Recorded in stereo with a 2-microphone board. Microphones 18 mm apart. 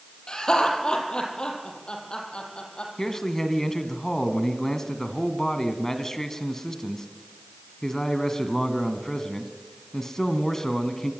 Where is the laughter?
50° left (ahead or behind), 5.5 m; by 2.9 s 60° left (ahead or behind), 7 m.